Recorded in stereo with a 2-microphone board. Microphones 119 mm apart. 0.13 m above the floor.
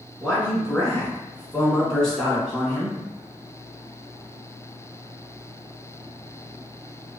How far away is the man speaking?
About 1.7 m.